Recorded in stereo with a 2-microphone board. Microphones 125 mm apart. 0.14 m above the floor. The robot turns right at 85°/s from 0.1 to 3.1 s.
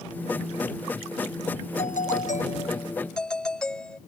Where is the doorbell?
60° left; by 4.0 s 175° left.